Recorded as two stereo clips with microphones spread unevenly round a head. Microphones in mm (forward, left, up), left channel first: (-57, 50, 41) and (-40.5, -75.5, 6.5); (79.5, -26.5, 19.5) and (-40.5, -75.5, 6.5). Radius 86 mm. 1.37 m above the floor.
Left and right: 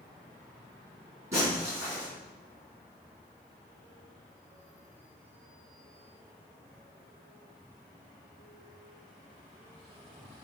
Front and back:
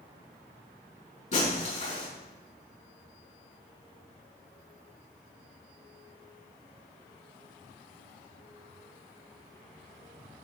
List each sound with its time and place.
1.3 s breaking glass: 5° right, 5 m